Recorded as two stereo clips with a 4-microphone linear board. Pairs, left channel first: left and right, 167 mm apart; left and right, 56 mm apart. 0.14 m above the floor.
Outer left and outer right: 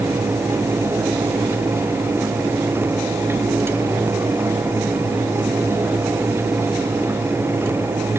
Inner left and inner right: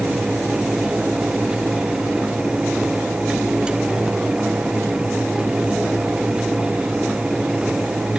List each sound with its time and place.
Only background noise.